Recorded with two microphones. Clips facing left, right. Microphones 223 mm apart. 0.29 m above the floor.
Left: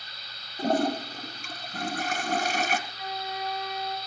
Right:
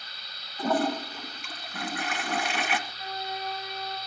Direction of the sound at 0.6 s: 40° left (ahead or behind).